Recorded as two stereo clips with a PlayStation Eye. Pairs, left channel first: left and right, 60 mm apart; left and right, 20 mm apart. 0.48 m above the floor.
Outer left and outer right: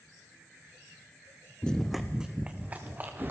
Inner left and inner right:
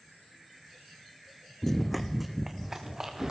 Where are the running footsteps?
15° left (ahead or behind), 1.0 m; by 3.3 s 30° right (ahead or behind), 2.5 m.